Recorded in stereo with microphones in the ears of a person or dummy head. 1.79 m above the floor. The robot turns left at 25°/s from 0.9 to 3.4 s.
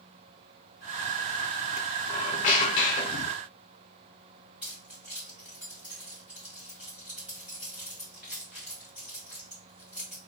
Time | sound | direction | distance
2.1 | a squeak | 100° left | 0.7 m
4.6 | keys jangling | 5° right (ahead or behind) | 1.4 m